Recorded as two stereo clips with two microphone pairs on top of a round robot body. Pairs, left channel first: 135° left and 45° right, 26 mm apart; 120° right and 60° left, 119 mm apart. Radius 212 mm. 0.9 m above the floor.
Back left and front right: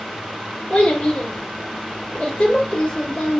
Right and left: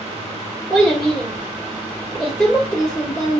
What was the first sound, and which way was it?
A child speaking, 170° left.